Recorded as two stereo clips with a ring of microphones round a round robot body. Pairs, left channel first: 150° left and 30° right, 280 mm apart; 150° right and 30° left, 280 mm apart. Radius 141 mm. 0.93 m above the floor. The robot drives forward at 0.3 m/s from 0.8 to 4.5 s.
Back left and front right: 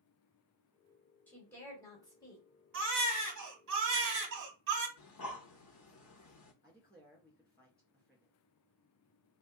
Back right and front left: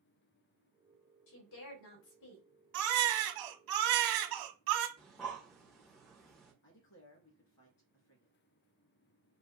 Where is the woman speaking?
125° right, 2.5 m; by 2.5 s 135° right, 2.5 m.